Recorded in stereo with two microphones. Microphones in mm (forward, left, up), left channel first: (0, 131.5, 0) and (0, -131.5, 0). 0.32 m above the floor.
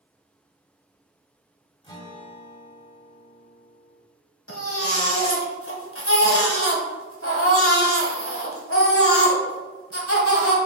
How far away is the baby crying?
About 1.4 m.